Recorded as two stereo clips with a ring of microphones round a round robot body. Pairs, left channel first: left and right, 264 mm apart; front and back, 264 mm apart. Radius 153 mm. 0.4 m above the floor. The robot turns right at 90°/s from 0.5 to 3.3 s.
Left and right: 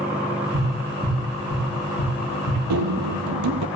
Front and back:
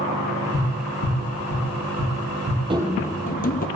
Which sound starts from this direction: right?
Running footsteps, at 2.7 s.